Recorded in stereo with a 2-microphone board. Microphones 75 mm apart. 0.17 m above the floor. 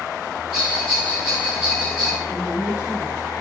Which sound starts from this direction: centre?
A bell, at 0.5 s.